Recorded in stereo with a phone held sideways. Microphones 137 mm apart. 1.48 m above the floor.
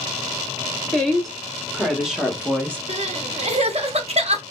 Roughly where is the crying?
Right.